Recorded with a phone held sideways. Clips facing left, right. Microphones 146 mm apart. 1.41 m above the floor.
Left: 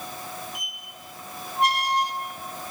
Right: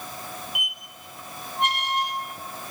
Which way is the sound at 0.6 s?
35° left (ahead or behind).